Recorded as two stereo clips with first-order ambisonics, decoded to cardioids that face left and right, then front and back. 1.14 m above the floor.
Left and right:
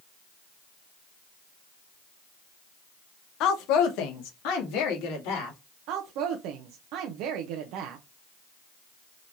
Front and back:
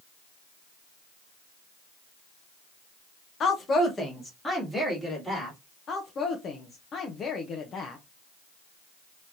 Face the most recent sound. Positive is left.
turn(degrees=-60)